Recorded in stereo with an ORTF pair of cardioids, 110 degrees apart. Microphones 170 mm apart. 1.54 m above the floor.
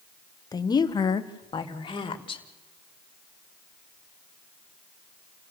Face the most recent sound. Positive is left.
turn(degrees=30)